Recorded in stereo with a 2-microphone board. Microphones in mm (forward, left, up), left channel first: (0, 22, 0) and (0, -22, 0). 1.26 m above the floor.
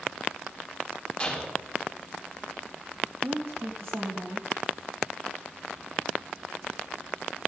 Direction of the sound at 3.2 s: 70° right (ahead or behind).